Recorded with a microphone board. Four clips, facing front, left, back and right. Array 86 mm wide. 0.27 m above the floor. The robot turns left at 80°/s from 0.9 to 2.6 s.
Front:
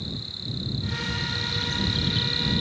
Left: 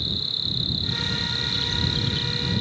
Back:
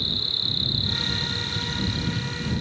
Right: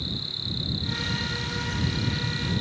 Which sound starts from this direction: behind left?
An insect, at 0.0 s.